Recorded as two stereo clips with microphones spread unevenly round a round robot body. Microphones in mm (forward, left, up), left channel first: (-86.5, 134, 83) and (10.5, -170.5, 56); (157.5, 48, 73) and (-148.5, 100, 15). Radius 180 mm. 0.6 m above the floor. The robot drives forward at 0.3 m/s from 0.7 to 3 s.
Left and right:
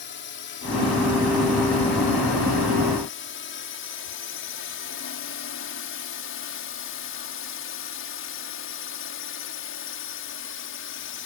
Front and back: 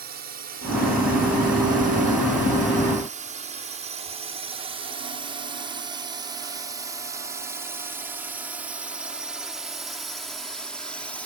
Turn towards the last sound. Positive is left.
turn(degrees=90)